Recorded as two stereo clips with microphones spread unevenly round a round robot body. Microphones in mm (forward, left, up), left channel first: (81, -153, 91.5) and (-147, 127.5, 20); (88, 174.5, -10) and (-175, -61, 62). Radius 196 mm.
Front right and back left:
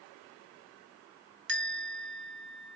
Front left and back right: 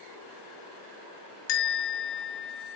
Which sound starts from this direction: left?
A bell, at 1.5 s.